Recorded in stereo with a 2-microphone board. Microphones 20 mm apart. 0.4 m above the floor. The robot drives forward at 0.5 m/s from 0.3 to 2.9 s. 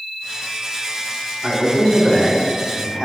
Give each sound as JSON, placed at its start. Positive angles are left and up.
{"t": 1.4, "sound": "a man speaking", "side_deg": -15, "distance_m": 3.0}